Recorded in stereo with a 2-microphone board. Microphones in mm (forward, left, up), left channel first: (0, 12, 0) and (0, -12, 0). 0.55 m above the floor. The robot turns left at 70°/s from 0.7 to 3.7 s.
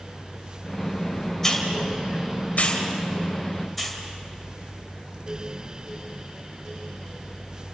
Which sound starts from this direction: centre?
A hiss, at 1.4 s.